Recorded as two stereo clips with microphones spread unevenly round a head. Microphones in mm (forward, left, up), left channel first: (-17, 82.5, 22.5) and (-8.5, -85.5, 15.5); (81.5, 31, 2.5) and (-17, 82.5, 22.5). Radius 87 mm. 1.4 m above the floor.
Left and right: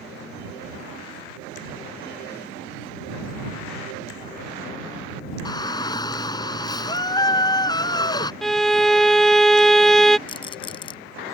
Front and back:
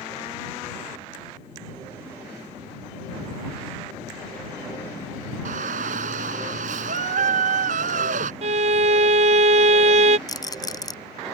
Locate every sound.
5.5 s a shout: 160° left
8.4 s a violin: straight behind
10.3 s a rattle: 30° left